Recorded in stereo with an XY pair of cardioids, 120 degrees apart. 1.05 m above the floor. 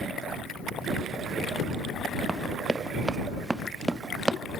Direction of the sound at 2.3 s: 10° right.